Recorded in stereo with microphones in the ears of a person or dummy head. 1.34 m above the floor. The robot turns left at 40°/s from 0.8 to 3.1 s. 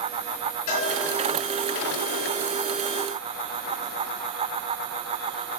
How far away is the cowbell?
About 3 m.